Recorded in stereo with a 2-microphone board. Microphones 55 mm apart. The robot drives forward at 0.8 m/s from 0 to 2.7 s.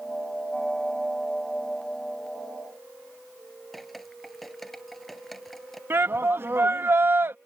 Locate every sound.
3.7 s dripping: centre (ahead or behind)
5.9 s a shout: 45° right (ahead or behind)